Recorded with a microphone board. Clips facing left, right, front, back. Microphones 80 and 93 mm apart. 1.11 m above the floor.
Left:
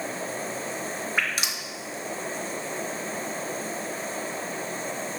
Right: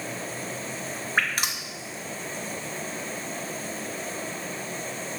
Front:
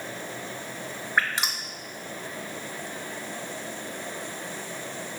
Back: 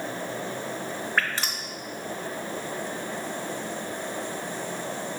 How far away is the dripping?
About 0.5 m.